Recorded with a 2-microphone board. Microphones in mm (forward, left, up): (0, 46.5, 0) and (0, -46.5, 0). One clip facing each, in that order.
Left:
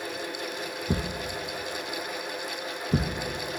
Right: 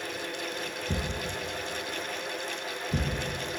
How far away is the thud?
About 2 m.